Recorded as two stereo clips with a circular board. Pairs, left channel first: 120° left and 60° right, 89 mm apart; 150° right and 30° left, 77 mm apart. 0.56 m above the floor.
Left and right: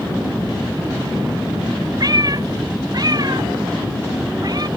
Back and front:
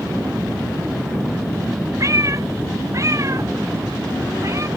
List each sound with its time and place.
2.0 s a cat meowing: 15° right